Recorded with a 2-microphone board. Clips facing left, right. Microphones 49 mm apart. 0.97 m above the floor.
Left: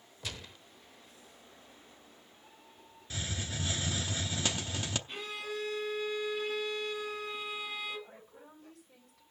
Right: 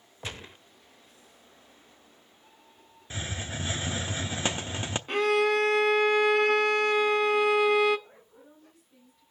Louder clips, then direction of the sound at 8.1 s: Left 1 dB; 70° left (ahead or behind).